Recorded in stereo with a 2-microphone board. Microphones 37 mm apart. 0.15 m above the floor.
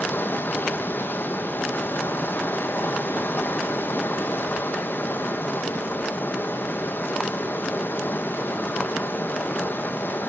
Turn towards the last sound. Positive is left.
turn(degrees=65)  # may be behind; listen again after turning